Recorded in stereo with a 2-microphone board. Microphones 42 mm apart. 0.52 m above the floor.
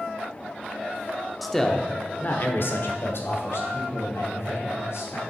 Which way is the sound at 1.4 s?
Centre (ahead or behind).